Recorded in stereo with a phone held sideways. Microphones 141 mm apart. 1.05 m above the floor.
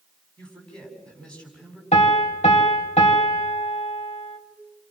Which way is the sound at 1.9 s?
55° left (ahead or behind).